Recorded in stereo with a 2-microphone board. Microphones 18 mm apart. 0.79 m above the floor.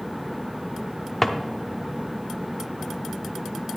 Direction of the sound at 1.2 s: 10° left (ahead or behind).